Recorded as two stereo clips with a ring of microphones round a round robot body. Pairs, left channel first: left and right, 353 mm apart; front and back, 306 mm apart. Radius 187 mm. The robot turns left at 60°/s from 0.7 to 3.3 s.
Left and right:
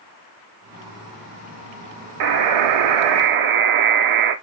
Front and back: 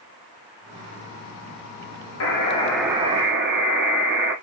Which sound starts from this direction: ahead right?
A buzzer, at 2.2 s.